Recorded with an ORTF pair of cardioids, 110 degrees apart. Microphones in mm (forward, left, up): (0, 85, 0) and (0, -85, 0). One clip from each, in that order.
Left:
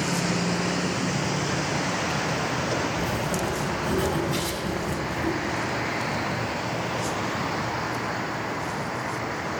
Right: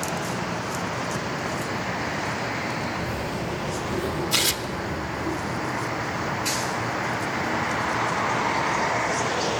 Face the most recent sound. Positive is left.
turn(degrees=-65)